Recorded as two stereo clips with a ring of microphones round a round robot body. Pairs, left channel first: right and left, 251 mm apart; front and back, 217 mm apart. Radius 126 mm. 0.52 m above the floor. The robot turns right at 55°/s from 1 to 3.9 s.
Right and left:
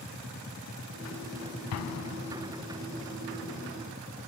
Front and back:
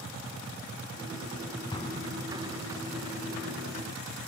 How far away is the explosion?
About 0.7 m.